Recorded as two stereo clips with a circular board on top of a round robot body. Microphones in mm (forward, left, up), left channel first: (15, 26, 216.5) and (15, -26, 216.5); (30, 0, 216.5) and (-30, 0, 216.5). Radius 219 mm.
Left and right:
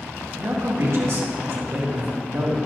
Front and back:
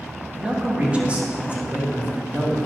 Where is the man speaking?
115° right, 2.5 m.